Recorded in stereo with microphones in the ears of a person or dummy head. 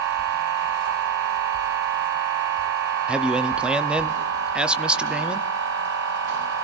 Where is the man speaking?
5° right (ahead or behind), 0.6 m.